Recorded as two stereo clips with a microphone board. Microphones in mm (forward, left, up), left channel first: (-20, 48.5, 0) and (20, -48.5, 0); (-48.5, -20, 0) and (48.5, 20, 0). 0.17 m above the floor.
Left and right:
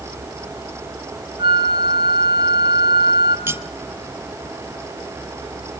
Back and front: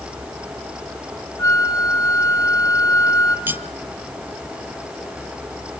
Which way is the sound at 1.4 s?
95° right.